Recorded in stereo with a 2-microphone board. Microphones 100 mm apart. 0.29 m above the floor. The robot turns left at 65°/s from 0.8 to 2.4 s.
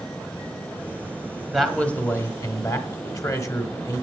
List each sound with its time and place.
1.5 s a man speaking: 175° right, 1.1 m; by 4.0 s 130° left, 1.1 m